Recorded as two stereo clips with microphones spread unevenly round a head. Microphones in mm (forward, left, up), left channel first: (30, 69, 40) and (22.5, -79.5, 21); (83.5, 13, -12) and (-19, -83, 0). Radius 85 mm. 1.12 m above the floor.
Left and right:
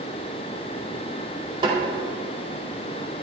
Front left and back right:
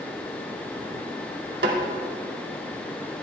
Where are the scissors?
No scissors in this recording.